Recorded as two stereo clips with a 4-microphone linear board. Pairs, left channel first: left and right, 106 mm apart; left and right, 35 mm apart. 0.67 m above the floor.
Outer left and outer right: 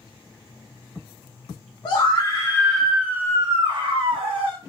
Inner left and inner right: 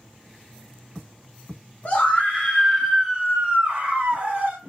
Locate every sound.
1.9 s a scream: 45° left (ahead or behind), 0.9 m; by 4.6 s 60° right (ahead or behind), 1.3 m